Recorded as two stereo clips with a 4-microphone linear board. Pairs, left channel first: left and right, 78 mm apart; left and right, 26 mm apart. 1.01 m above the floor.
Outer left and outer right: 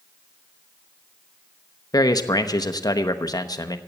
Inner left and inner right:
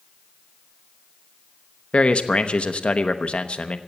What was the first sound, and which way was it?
A man speaking, 55° left (ahead or behind).